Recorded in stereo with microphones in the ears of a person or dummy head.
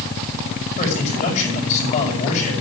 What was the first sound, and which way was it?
A man speaking, 45° left (ahead or behind).